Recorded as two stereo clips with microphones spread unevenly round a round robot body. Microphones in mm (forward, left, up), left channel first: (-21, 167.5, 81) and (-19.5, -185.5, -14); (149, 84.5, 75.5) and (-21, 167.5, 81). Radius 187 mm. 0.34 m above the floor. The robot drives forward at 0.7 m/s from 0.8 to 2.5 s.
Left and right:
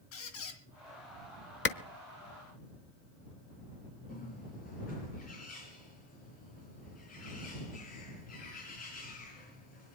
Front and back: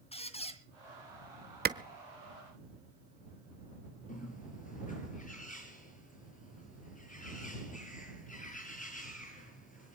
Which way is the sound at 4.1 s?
20° left.